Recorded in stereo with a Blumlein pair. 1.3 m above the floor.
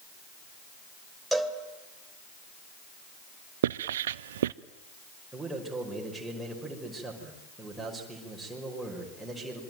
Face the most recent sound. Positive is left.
turn(degrees=-5)